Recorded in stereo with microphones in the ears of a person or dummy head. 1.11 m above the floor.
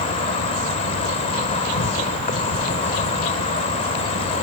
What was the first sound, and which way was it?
An insect, 35° left (ahead or behind).